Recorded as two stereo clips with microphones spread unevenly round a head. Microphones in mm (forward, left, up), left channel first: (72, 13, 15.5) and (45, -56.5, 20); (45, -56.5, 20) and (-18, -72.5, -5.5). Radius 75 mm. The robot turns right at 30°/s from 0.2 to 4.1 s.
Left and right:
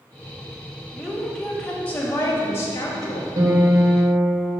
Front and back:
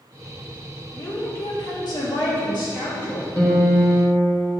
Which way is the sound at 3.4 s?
70° right.